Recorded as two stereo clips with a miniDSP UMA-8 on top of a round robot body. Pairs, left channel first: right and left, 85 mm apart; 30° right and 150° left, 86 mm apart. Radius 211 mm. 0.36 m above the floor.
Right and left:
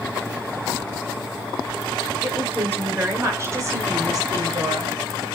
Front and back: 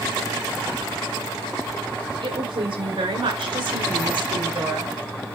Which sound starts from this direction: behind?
A woman speaking, at 2.2 s.